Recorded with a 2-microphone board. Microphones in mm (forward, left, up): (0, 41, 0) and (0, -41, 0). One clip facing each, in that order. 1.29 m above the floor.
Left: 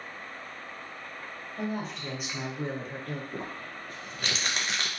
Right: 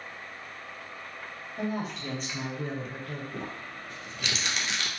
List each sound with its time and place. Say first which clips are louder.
1.6 s a woman speaking: right 1 dB; 10° right (ahead or behind), 1.0 m; by 3.2 s 50° left (ahead or behind), 0.7 m
3.3 s crumpling: even; 40° left (ahead or behind), 0.5 m